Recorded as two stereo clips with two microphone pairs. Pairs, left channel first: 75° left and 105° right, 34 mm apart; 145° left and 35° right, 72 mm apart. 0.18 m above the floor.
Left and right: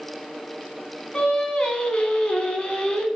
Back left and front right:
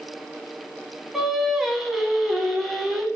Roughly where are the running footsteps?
No running footsteps in this recording.